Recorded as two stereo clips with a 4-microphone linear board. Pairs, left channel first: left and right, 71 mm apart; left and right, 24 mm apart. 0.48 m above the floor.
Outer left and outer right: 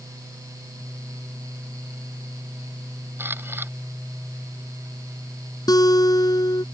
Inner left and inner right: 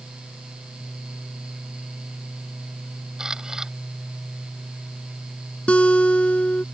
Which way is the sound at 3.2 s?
30° right (ahead or behind).